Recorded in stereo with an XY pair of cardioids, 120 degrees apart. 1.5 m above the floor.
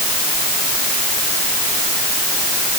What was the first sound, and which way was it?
Only background noise.